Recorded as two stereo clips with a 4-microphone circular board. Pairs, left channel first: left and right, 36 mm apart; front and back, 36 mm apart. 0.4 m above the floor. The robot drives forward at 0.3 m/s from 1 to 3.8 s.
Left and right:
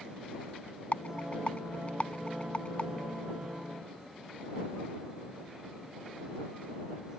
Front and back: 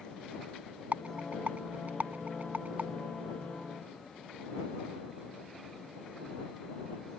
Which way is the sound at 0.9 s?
140° left.